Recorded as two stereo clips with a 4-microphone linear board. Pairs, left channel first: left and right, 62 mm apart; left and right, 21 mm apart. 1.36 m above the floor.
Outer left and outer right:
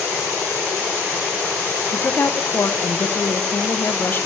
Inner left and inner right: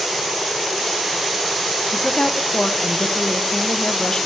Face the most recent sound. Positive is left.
turn(degrees=40)  # may be behind; listen again after turning